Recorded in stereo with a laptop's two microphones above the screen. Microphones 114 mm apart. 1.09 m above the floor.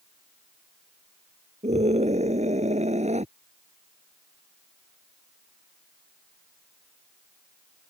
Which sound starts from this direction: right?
A scream, at 1.6 s.